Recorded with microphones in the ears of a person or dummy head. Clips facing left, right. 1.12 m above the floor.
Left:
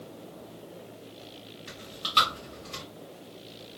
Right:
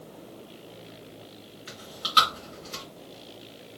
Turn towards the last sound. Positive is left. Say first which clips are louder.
# right 3 dB
turn(degrees=-5)  # may be behind; listen again after turning